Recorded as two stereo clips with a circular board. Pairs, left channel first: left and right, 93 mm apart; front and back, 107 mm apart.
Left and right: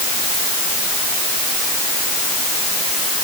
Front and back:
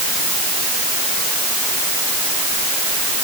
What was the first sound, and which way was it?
Only background noise.